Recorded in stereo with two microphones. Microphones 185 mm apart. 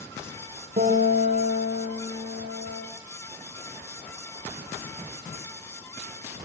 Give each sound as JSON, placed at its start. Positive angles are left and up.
{"t": 0.8, "sound": "a guitar", "side_deg": -50, "distance_m": 5.5}